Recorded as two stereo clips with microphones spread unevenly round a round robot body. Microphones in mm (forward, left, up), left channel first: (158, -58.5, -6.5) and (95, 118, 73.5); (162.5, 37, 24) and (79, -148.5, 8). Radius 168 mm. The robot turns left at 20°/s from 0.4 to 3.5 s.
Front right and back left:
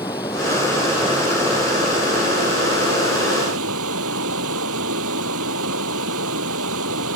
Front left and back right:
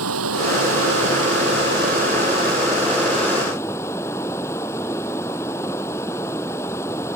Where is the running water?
150° right; by 7.2 s 150° left.